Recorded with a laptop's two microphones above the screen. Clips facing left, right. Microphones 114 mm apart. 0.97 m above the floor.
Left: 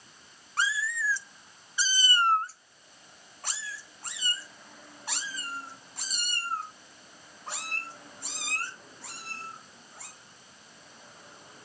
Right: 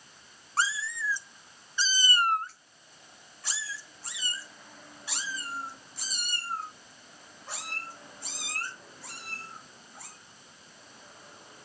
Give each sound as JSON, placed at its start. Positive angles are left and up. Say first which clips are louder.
{"t": 0.6, "sound": "a cat meowing", "louder": "left 1 dB", "side_deg": -35, "distance_m": 0.8}